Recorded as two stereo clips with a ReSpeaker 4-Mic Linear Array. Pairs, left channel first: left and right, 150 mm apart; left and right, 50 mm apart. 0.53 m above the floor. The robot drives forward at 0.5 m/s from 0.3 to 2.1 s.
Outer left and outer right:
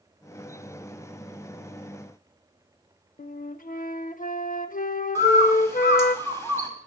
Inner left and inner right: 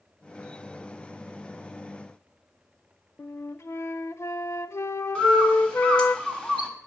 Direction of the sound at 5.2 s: 20° left (ahead or behind).